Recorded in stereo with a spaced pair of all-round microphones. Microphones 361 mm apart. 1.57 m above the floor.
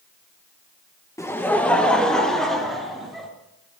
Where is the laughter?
10° left (ahead or behind), 1.2 m; by 3.3 s centre (ahead or behind), 4 m.